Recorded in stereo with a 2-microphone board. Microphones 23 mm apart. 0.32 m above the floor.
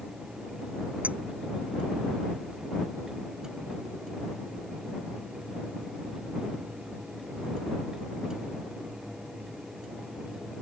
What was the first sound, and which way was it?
A clink, 85° right.